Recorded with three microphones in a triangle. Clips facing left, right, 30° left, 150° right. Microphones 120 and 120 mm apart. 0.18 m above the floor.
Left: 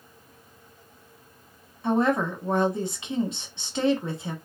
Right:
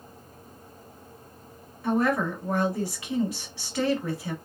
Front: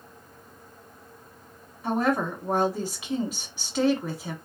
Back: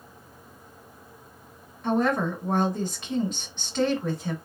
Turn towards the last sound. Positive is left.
turn(degrees=100)